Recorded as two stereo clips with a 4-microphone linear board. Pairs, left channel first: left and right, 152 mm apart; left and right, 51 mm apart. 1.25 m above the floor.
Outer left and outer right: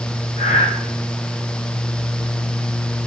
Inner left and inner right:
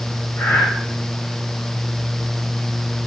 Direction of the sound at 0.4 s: 55° left (ahead or behind).